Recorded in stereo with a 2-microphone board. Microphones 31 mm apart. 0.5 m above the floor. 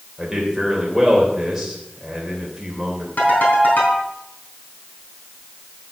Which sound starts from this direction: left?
A ringtone, at 3.2 s.